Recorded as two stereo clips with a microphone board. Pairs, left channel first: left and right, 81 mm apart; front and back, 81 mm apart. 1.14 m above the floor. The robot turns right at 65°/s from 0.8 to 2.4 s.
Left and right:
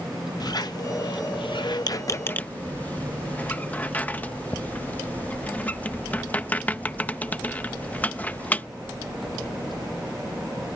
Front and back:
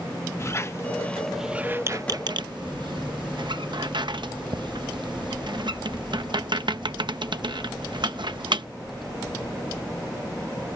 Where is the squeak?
55° left; by 8.7 s 160° left.